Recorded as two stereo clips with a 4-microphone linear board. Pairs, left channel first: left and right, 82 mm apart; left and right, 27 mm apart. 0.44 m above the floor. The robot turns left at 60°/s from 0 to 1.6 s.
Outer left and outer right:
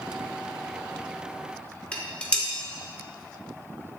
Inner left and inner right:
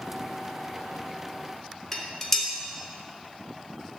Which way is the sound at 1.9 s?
15° left (ahead or behind).